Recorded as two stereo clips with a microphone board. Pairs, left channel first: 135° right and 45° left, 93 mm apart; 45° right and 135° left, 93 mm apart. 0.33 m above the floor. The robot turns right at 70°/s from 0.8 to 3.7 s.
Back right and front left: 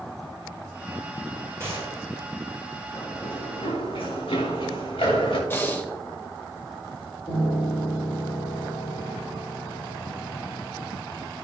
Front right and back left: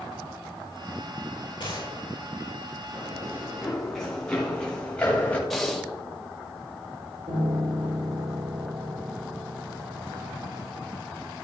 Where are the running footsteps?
175° left, 5 m; by 5.4 s 120° right, 3 m.